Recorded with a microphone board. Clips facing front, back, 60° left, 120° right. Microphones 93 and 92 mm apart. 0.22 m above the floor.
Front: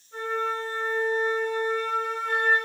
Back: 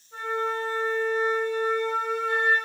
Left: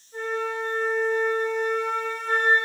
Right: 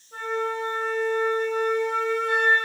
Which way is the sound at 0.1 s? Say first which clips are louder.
Even, right 1 dB; 100° right.